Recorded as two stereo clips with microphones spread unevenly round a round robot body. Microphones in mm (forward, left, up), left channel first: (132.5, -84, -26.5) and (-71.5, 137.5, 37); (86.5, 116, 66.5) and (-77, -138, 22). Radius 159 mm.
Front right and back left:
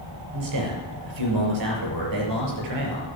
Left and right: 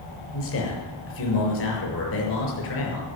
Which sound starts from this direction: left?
A man speaking, at 0.3 s.